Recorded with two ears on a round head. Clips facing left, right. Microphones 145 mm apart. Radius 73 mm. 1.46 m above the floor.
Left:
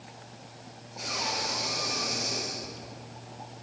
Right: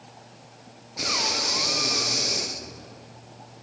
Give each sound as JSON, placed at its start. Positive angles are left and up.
{"t": 1.0, "sound": "breathing", "side_deg": -75, "distance_m": 0.8}